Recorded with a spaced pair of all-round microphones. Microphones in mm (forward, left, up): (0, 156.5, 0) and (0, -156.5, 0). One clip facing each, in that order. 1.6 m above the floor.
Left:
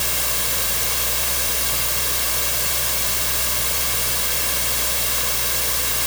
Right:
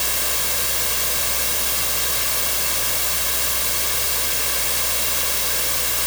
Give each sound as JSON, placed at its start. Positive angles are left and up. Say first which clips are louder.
{"t": 0.0, "sound": "a fan", "louder": "even", "side_deg": 20}